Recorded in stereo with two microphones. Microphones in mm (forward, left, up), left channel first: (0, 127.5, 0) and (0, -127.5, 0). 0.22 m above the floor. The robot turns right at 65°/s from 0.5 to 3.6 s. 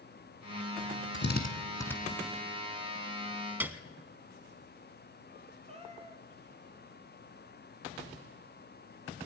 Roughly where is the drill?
Left.